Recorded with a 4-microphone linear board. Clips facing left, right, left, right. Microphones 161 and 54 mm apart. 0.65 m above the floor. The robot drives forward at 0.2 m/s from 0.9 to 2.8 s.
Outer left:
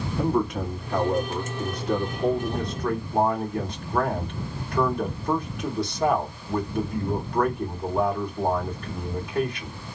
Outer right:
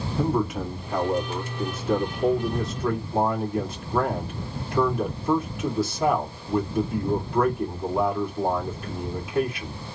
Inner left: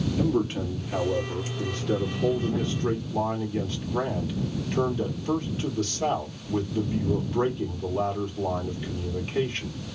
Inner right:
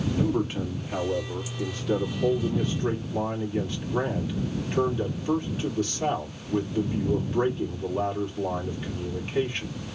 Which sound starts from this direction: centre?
A man speaking, at 0.2 s.